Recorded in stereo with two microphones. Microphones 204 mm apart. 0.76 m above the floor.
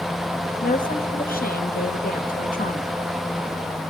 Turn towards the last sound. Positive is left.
turn(degrees=45)  # may be behind; listen again after turning